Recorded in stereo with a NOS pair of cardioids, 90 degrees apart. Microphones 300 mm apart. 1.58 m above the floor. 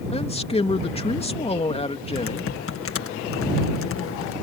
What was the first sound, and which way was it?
A man speaking, 20° left.